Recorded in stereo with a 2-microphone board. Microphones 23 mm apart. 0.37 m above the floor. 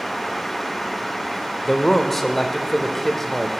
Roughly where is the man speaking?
Centre.